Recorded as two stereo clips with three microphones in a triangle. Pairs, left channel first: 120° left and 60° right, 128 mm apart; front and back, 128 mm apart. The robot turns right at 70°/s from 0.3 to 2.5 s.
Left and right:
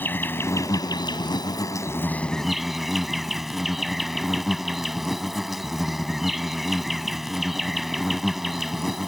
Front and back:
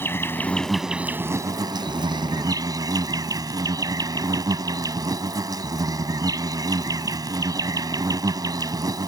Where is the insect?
60° left; by 9.1 s 145° right.